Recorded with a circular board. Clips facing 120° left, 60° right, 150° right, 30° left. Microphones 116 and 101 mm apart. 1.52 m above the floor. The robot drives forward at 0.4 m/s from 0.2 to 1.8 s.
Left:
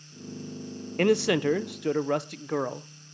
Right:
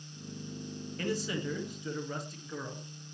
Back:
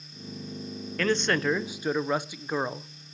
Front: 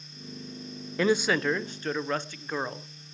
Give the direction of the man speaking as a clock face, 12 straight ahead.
9 o'clock.